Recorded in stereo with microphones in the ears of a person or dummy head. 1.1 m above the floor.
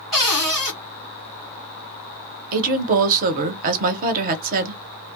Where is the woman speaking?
45° right (ahead or behind), 0.8 m.